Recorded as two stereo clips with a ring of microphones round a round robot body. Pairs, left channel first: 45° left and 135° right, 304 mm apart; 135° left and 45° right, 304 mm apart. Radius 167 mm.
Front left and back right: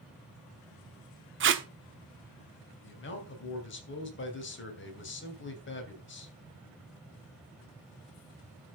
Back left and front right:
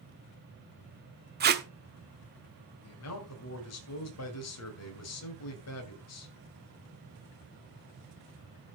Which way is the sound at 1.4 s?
95° right.